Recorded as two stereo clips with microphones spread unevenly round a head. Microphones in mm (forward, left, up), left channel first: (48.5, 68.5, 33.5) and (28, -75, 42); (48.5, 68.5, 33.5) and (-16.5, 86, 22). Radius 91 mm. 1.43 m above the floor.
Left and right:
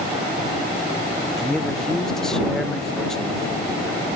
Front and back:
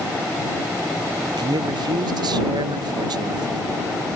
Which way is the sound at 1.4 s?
170° left.